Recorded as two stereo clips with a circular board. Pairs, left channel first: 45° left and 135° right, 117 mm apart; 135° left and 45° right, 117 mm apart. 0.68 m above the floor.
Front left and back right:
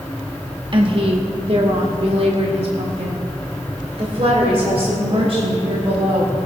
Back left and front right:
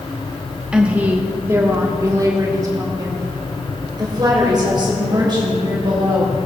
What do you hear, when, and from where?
0.7 s a woman speaking: 125° right, 1.0 m; by 6.3 s 95° right, 4 m